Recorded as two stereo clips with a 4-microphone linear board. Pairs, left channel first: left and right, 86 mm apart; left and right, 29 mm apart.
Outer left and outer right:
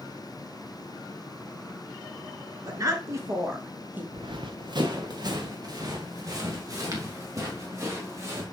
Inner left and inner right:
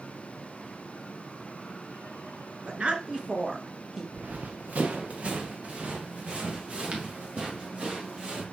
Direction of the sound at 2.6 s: 45° right (ahead or behind).